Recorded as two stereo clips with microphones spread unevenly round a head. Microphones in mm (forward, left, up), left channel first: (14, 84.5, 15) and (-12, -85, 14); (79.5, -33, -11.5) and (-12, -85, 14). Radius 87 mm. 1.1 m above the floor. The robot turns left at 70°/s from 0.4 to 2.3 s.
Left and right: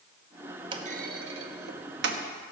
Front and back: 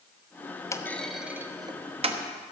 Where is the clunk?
35° right, 1.0 m; by 2.2 s 140° right, 1.0 m.